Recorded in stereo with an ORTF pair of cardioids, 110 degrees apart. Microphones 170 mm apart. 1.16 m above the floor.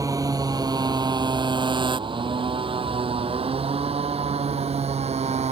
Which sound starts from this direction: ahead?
A motorcycle, at 0.0 s.